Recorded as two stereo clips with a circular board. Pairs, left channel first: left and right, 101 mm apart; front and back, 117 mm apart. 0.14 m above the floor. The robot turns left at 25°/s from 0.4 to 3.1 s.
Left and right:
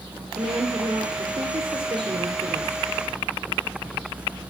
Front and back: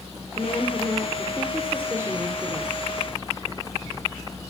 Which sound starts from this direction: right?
A woman speaking, at 0.4 s.